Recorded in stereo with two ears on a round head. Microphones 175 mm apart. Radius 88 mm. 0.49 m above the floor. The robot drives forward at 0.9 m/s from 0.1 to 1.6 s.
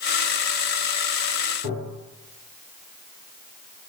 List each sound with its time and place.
1.6 s tapping: 30° right (ahead or behind), 1.5 m